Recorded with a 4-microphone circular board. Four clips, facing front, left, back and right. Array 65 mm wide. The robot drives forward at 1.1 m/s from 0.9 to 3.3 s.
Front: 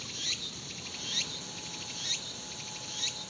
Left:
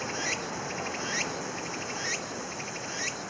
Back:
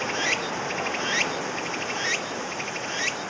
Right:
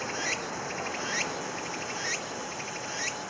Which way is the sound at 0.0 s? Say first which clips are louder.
Even, back 15 dB; 175° right.